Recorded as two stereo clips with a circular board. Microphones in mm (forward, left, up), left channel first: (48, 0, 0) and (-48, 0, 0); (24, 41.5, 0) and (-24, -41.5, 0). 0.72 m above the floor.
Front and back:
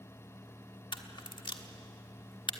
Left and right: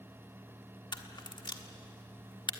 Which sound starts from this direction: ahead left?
A camera shutter, at 0.9 s.